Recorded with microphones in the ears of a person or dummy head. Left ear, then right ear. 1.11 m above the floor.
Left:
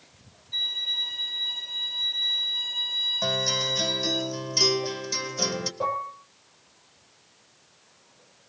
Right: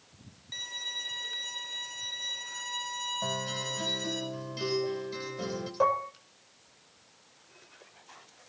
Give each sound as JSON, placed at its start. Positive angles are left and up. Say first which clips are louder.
{"t": 0.5, "sound": "a violin", "louder": "left 9 dB", "side_deg": -55, "distance_m": 5.5}
{"t": 3.2, "sound": "a guitar", "louder": "left 9 dB", "side_deg": 70, "distance_m": 3.0}
{"t": 5.8, "sound": "dishes clattering", "louder": "right 3 dB", "side_deg": -45, "distance_m": 2.5}